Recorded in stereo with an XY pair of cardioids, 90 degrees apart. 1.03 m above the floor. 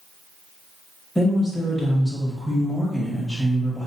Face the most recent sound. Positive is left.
turn(degrees=20)